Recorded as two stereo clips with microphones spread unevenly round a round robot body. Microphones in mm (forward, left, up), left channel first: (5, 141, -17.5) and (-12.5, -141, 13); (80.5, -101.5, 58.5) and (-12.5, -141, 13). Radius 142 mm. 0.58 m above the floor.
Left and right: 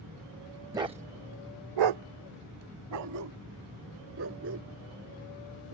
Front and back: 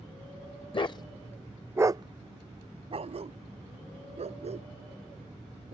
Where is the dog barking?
15° right; by 5.7 s 145° right.